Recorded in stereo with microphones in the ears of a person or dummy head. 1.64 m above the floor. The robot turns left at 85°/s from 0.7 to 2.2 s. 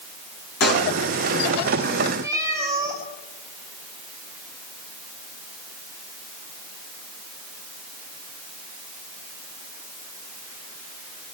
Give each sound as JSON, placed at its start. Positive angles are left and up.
{"t": 0.6, "sound": "a pop", "side_deg": 65, "distance_m": 6.0}
{"t": 2.2, "sound": "a cat meowing", "side_deg": -20, "distance_m": 5.0}